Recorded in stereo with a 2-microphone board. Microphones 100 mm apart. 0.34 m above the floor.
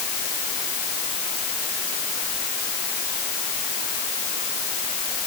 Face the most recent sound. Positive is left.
No sound to turn to.